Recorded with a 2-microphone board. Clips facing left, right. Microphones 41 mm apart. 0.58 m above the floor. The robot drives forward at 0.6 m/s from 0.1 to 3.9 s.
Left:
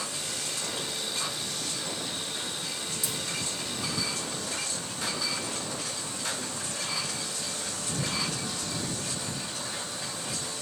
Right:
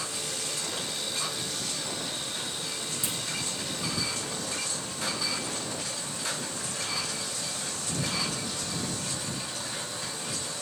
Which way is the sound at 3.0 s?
30° right (ahead or behind).